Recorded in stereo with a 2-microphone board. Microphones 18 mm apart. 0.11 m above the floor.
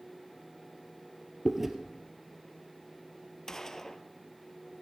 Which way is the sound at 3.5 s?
25° left (ahead or behind).